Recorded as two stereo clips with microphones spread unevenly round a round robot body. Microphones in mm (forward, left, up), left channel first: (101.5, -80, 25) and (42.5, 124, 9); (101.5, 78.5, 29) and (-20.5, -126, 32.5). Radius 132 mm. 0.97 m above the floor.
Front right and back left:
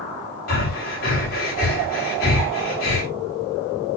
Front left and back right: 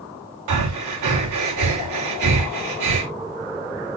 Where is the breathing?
130° right, 2.5 m.